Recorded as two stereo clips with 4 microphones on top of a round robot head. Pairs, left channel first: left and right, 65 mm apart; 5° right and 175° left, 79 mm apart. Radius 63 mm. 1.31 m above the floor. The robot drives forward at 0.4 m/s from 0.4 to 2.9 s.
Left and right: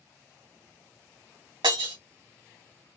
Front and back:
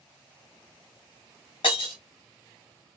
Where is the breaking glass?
50° right, 1.5 m.